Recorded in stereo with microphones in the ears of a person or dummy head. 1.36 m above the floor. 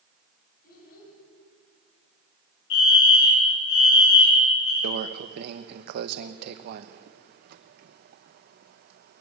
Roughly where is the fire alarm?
Left.